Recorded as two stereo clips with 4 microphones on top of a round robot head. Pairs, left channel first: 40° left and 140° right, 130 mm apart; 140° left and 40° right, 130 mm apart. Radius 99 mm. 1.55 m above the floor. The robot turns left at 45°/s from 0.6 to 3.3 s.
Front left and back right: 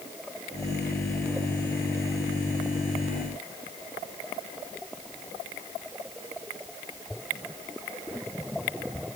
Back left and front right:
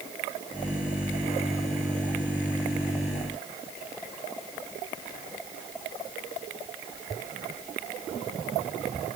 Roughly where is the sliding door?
I don't hear a sliding door.